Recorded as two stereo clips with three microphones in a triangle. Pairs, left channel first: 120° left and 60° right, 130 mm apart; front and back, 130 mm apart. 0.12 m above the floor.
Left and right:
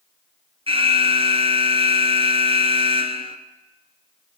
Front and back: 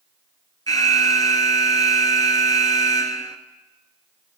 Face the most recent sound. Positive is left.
turn(degrees=-50)